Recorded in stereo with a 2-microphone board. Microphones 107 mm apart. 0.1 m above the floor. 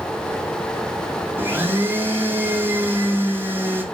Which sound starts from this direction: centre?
A blender, at 1.4 s.